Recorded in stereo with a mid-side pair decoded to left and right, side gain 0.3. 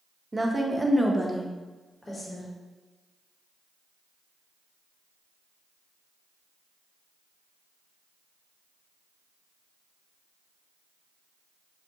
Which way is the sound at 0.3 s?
25° right.